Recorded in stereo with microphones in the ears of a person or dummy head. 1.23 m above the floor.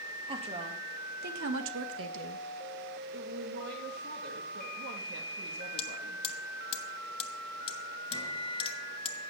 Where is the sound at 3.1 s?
75° right (ahead or behind), 1.9 m.